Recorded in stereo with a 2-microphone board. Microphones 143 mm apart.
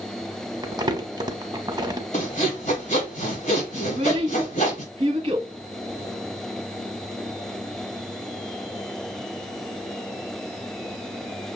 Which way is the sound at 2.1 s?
55° left (ahead or behind).